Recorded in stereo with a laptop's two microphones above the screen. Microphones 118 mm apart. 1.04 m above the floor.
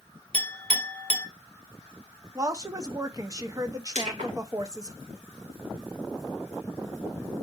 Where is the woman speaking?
30° right (ahead or behind), 0.7 m.